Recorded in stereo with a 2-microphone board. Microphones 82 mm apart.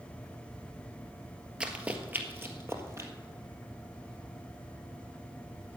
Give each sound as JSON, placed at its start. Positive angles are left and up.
{"t": 1.6, "sound": "running footsteps", "side_deg": -15, "distance_m": 1.4}